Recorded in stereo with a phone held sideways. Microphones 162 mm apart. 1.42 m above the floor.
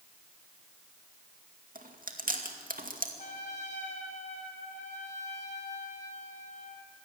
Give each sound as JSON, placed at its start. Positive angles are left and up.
{"t": 1.8, "sound": "chewing", "side_deg": -60, "distance_m": 2.0}
{"t": 3.2, "sound": "a trumpet", "side_deg": 50, "distance_m": 3.0}